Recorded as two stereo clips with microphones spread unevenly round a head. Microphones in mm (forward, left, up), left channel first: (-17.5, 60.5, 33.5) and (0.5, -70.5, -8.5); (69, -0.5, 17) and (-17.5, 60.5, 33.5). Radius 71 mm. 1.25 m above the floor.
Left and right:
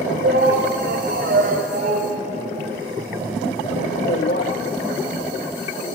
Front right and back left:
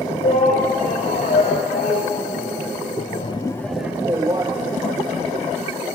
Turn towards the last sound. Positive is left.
turn(degrees=90)